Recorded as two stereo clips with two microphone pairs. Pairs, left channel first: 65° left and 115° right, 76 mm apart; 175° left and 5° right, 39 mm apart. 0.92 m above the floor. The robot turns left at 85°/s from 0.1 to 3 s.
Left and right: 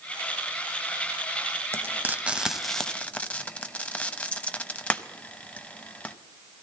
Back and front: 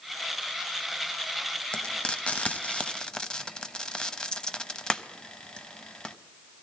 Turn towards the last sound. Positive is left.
turn(degrees=120)